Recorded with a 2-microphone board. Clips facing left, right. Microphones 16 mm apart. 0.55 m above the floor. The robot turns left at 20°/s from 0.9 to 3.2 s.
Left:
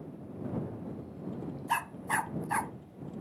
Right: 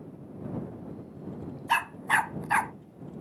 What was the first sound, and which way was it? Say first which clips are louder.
A dog barking: right 6 dB; 45° right (ahead or behind).